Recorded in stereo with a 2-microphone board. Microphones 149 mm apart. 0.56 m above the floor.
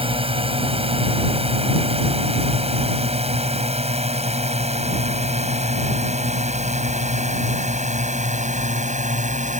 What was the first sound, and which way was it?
A drone, 40° right (ahead or behind).